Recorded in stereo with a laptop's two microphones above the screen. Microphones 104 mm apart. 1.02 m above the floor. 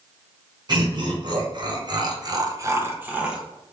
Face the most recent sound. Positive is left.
turn(degrees=-5)  # may be behind; listen again after turning